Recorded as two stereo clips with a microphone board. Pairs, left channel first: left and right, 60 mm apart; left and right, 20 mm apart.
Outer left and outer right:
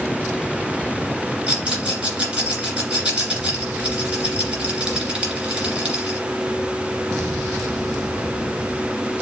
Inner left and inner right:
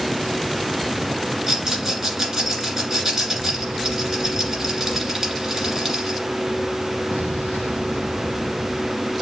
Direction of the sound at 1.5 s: 25° right (ahead or behind).